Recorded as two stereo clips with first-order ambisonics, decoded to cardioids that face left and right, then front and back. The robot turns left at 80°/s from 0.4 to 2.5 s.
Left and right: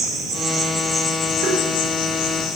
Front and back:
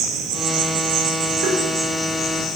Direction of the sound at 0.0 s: 145° right.